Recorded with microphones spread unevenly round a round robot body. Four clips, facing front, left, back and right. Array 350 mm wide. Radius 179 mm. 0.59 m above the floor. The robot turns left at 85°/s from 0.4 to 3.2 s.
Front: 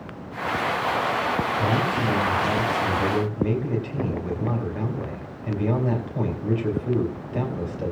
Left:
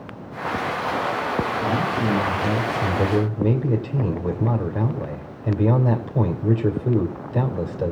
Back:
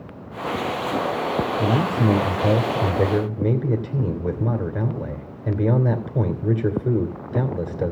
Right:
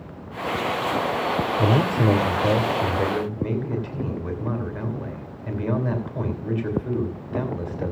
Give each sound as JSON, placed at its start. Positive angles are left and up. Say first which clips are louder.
{"t": 1.6, "sound": "a man speaking", "louder": "right 2 dB, back 2 dB", "azimuth_deg": -75, "distance_m": 3.0}